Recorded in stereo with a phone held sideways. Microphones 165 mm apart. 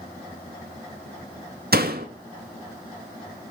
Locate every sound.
1.7 s a door slam: 70° right (ahead or behind), 1.7 m